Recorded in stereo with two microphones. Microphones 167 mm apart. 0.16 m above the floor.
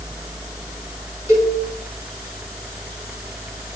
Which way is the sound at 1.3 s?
15° right (ahead or behind).